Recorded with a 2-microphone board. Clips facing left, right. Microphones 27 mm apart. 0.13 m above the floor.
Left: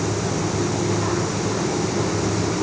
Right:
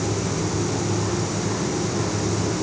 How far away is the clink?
I don't hear a clink.